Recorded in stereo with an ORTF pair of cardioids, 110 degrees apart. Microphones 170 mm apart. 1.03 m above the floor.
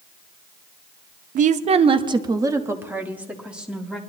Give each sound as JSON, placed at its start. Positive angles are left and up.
{"t": 1.4, "sound": "a woman speaking", "azimuth_deg": -50, "distance_m": 0.8}